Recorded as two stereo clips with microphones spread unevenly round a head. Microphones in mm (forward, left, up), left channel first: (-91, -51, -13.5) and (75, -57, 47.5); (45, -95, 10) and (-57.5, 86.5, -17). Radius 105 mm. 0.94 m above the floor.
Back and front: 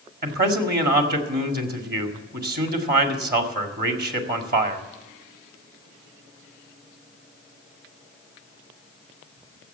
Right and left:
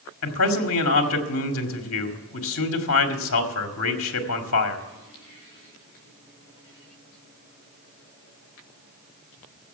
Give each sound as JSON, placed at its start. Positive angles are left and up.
{"t": 0.2, "sound": "a man speaking", "azimuth_deg": -35, "distance_m": 2.0}